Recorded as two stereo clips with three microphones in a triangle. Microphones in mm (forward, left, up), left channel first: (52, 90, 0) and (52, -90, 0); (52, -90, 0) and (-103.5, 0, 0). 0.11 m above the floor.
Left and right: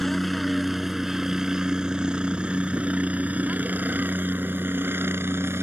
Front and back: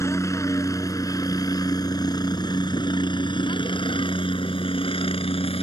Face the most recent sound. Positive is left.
turn(degrees=-25)